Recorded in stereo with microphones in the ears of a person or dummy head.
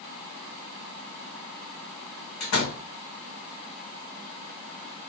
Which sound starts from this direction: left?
A door slam, at 2.4 s.